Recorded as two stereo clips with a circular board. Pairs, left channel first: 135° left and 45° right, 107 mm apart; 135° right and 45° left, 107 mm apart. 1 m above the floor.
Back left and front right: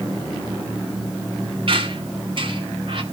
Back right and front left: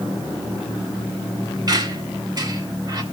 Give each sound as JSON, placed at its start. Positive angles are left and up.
{"t": 1.7, "sound": "a squeak", "azimuth_deg": -10, "distance_m": 1.4}